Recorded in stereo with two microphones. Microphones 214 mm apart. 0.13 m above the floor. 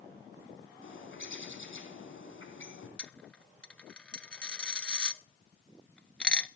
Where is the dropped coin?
5° left (ahead or behind), 0.6 m.